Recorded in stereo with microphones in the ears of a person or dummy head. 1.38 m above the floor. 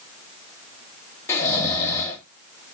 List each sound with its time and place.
1.3 s snoring: 15° left (ahead or behind), 1.2 m